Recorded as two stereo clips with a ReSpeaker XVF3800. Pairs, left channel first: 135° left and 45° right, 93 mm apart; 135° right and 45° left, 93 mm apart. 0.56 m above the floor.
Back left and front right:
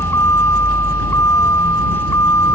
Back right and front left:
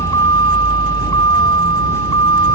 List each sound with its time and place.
0.0 s a vehicle: 170° right